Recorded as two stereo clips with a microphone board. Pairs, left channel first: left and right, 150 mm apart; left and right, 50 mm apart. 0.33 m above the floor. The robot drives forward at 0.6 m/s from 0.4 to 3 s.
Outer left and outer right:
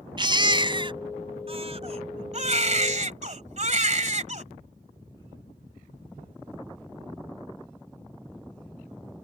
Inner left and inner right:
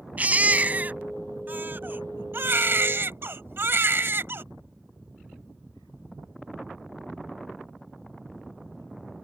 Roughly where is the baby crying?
Right.